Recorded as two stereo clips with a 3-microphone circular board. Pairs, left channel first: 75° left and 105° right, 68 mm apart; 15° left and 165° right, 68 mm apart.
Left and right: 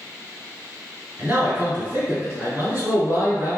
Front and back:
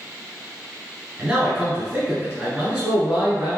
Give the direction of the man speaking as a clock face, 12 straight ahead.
3 o'clock.